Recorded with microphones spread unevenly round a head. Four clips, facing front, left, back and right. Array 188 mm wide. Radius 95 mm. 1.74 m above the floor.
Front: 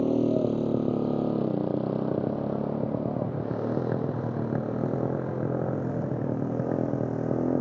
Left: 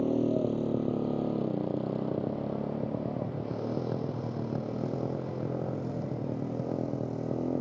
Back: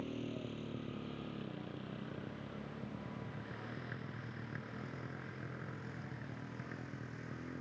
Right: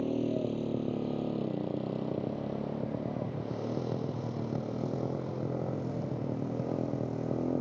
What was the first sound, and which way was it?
A motorcycle, 15° left.